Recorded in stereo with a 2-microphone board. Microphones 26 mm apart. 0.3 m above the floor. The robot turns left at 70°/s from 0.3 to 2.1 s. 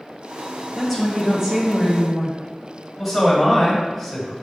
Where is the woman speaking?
10° left (ahead or behind), 1.2 m; by 2.4 s 20° right (ahead or behind), 1.2 m.